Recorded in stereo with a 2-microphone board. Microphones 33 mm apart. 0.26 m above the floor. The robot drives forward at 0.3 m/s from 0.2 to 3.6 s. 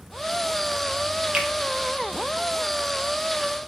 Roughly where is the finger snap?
Right.